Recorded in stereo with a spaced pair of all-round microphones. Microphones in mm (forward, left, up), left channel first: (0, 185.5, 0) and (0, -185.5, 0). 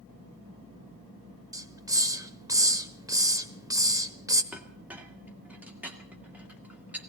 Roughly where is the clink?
Centre.